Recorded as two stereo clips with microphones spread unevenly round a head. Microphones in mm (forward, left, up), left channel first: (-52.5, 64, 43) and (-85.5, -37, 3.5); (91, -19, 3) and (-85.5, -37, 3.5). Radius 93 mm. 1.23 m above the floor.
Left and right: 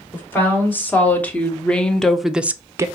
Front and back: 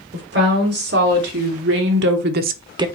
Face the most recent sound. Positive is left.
turn(degrees=-110)